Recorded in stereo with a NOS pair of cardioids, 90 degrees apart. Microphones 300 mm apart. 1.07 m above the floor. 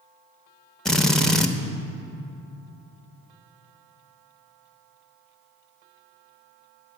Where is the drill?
Straight ahead, 0.7 m.